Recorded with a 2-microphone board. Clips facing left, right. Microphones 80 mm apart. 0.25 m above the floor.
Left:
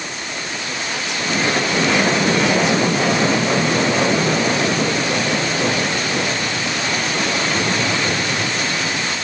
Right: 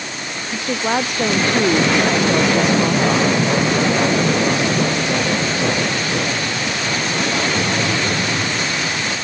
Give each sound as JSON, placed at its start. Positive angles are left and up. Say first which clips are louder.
{"t": 0.5, "sound": "a woman speaking", "louder": "right 10 dB", "side_deg": -50}